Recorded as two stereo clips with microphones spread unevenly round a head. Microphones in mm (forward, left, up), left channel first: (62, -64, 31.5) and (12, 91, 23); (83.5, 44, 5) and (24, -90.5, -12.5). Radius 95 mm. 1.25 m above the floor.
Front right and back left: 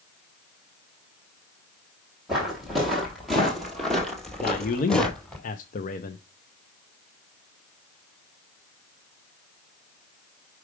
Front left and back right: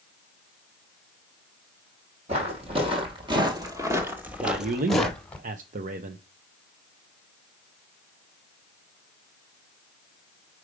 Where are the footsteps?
160° right, 1.8 m; by 5.4 s 5° left, 1.4 m.